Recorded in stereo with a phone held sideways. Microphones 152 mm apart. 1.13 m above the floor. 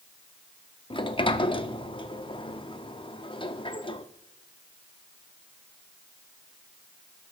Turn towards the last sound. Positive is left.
turn(degrees=35)  # may be behind; listen again after turning